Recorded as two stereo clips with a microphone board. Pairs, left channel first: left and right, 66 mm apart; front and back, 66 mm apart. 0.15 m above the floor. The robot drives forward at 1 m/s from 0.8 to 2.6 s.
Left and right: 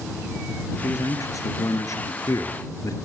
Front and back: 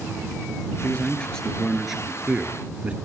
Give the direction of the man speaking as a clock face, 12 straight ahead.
10 o'clock.